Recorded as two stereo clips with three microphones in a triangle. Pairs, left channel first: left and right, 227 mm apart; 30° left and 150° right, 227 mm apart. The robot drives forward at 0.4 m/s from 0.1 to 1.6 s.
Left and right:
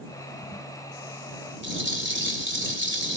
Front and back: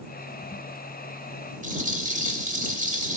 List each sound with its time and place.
1.6 s a rattle: 100° right, 2.5 m